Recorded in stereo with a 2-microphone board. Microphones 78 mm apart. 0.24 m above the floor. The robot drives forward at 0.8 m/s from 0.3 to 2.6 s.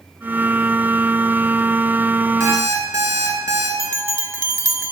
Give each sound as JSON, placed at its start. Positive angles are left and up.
{"t": 2.4, "sound": "an alarm clock", "side_deg": -35, "distance_m": 1.8}
{"t": 3.8, "sound": "a bell", "side_deg": -40, "distance_m": 0.5}